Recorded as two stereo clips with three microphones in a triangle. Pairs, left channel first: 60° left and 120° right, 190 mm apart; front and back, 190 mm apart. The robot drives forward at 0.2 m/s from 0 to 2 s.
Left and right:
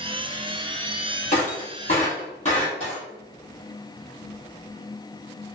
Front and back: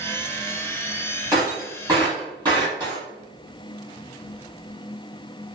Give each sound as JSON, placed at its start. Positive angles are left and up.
{"t": 1.3, "sound": "breaking glass", "azimuth_deg": 105, "distance_m": 1.6}